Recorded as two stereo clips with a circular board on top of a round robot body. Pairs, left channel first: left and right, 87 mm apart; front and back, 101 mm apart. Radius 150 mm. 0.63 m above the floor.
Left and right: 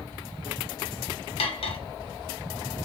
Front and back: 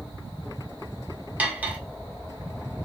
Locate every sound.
1.4 s cutlery clinking: 105° left, 1.1 m